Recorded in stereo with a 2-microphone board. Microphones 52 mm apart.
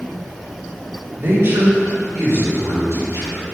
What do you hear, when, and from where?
1.2 s a man speaking: 45° right (ahead or behind), 3 m; by 3.4 s 80° right, 4 m